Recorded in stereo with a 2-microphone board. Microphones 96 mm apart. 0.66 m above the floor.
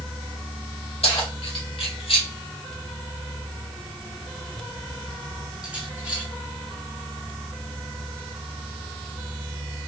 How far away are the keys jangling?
About 1.9 m.